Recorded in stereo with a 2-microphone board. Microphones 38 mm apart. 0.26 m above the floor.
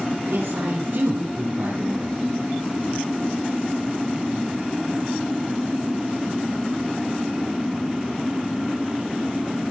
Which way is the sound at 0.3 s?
80° right.